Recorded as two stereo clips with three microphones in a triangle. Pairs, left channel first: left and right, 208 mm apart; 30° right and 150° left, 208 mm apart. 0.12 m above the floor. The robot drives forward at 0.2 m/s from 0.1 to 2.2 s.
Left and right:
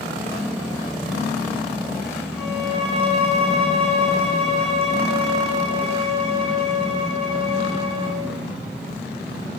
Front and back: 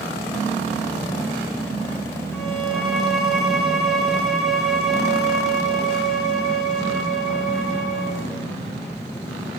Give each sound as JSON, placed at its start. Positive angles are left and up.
{"t": 2.3, "sound": "a violin", "azimuth_deg": -120, "distance_m": 0.6}